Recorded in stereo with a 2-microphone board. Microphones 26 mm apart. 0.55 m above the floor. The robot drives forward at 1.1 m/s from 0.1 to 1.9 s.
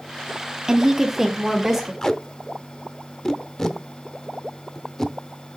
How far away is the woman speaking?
About 0.7 m.